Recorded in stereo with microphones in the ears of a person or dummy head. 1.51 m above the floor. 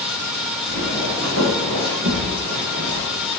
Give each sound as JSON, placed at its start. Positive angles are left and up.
{"t": 0.7, "sound": "footsteps", "side_deg": -75, "distance_m": 5.5}